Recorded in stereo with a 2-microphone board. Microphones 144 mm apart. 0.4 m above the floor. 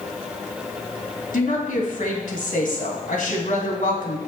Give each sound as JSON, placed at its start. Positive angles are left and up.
{"t": 1.3, "sound": "a woman speaking", "side_deg": 70, "distance_m": 2.5}